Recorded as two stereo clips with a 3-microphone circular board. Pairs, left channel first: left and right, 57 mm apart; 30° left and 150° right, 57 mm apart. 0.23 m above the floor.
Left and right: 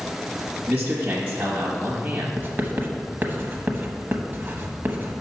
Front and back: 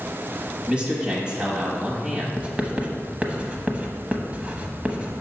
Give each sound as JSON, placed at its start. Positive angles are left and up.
{"t": 0.7, "sound": "a man speaking", "azimuth_deg": -105, "distance_m": 1.0}
{"t": 2.4, "sound": "writing", "azimuth_deg": -100, "distance_m": 0.9}